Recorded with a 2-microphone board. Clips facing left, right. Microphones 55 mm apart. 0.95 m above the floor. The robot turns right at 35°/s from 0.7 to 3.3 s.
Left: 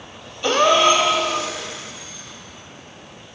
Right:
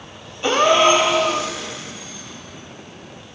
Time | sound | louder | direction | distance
0.4 | a gasp | right 1 dB | 20° right (ahead or behind) | 0.9 m